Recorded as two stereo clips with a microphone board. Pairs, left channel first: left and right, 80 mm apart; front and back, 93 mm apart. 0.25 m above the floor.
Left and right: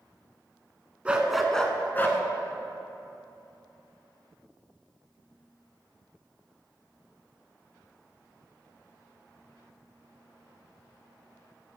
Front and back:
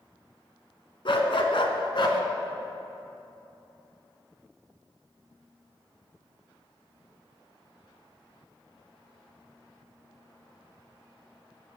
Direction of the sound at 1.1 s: 15° right.